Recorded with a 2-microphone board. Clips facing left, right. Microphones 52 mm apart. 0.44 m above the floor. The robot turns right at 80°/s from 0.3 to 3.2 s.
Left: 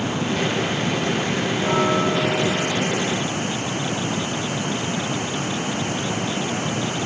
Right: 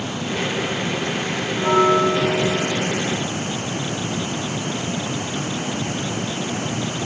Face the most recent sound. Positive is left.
turn(degrees=0)